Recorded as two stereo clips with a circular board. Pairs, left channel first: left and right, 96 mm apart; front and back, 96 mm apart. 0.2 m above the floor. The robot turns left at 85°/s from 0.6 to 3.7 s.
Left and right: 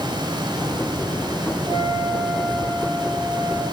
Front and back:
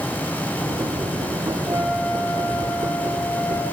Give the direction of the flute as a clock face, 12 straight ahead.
4 o'clock.